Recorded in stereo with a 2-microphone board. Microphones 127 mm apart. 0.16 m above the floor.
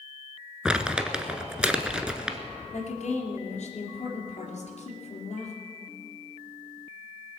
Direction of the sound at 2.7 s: 65° left (ahead or behind).